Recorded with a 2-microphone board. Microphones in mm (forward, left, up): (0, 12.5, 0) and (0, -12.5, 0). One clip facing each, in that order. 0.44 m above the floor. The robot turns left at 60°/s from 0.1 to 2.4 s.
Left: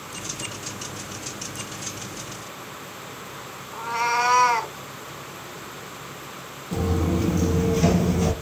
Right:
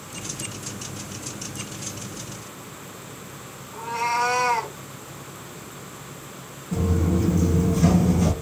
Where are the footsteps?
65° left (ahead or behind), 1.0 m; by 8.3 s 10° left (ahead or behind), 0.7 m.